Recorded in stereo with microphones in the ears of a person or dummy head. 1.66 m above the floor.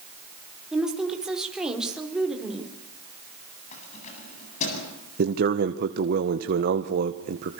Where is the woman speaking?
10° right (ahead or behind), 5 m.